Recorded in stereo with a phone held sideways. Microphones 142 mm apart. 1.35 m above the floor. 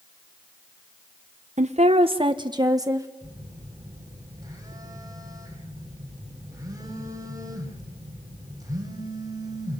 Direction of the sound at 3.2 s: 25° right (ahead or behind).